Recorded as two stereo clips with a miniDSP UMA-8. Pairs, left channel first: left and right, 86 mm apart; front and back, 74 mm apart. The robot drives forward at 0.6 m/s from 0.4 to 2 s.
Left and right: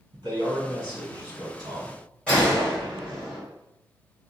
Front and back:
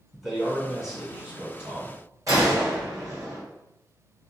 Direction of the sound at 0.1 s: 90° right.